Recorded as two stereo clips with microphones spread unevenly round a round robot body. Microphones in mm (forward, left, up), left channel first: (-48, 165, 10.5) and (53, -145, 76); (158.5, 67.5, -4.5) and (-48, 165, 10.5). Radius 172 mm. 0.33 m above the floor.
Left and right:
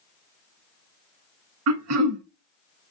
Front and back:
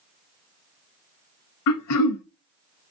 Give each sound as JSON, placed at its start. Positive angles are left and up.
{"t": 1.7, "sound": "throat clearing", "azimuth_deg": -25, "distance_m": 0.6}